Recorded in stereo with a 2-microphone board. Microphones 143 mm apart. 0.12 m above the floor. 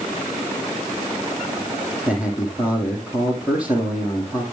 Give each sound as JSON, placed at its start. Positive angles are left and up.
{"t": 2.1, "sound": "a man speaking", "side_deg": -10, "distance_m": 5.0}